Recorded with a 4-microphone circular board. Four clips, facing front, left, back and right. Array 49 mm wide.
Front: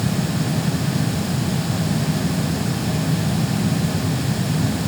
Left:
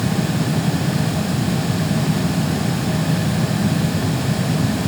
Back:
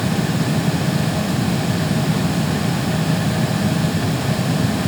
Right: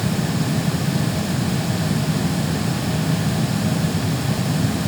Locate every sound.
Only background noise.